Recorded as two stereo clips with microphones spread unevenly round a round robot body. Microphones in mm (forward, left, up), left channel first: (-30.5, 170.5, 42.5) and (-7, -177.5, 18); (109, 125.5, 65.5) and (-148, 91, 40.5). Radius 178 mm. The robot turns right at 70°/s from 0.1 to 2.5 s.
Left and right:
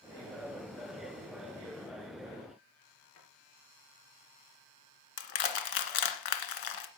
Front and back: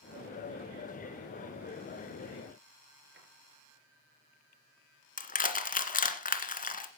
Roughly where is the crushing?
Ahead left.